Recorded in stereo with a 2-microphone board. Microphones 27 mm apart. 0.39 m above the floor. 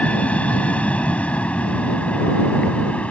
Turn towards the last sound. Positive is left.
turn(degrees=50)  # may be behind; listen again after turning